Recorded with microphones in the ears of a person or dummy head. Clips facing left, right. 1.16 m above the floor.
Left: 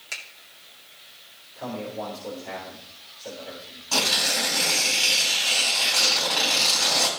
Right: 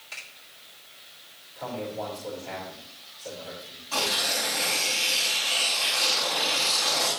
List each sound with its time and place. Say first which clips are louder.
0.1 s a finger snap: left 4 dB; 70° left (ahead or behind), 2.5 m
1.6 s a man speaking: left 1 dB; 15° left (ahead or behind), 4 m
3.9 s tearing paper: left 2 dB; 70° left (ahead or behind), 4 m